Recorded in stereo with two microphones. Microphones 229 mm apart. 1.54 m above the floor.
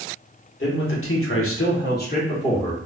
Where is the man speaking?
55° left (ahead or behind), 1.2 m; by 2.8 s 10° left (ahead or behind), 1.1 m.